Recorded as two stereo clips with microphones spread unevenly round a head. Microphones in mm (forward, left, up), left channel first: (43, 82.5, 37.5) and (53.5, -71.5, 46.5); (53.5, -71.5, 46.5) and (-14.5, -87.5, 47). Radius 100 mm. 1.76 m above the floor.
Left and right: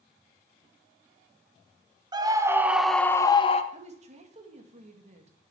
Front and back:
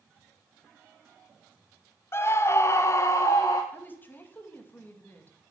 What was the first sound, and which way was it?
A scream, 30° right.